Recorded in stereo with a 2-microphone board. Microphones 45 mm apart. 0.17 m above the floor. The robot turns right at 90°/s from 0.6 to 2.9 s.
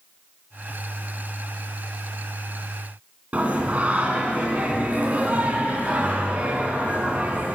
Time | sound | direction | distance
3.3 | singing | 35° right (ahead or behind) | 2.0 m